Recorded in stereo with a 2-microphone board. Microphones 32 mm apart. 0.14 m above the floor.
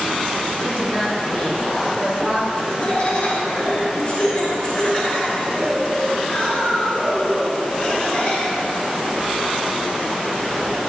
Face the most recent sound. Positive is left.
turn(degrees=40)  # may be behind; listen again after turning